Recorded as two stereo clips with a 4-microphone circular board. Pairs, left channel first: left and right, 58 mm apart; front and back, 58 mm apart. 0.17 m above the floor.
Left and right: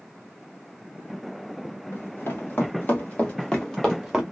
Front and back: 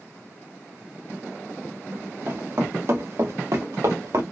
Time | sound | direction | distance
1.9 | running footsteps | 135° left | 2 m